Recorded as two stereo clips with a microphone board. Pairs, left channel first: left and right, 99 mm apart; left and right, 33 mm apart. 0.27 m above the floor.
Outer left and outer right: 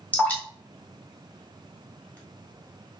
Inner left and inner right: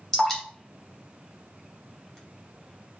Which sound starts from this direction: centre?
Dripping, at 0.1 s.